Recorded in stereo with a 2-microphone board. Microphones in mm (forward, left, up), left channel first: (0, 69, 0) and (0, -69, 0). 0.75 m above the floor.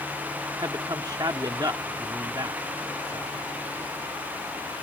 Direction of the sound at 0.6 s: 30° right (ahead or behind).